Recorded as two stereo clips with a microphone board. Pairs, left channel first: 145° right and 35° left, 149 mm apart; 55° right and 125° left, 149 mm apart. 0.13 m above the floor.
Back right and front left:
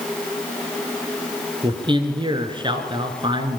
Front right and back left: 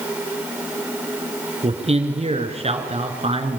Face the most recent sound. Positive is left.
turn(degrees=85)